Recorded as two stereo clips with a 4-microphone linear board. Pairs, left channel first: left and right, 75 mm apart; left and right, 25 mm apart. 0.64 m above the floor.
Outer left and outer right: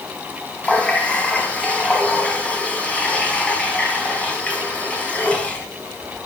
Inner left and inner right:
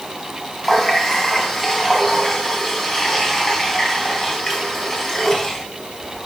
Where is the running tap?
15° left (ahead or behind), 4 m.